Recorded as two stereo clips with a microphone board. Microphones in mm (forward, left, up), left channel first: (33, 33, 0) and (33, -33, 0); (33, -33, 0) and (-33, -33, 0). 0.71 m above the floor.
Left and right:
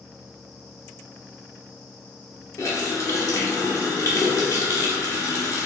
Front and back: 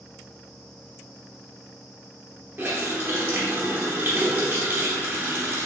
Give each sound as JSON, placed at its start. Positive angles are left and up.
{"t": 2.6, "sound": "a running tap", "azimuth_deg": 125, "distance_m": 0.9}